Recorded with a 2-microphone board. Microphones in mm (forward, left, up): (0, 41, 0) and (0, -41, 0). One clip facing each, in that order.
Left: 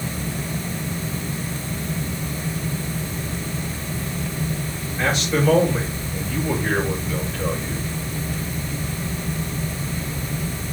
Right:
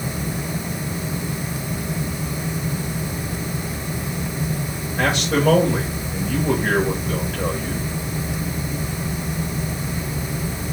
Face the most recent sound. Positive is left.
turn(degrees=-75)  # may be behind; listen again after turning